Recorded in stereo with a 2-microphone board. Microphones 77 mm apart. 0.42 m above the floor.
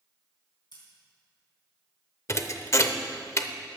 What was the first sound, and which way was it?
Scissors, 70° left (ahead or behind).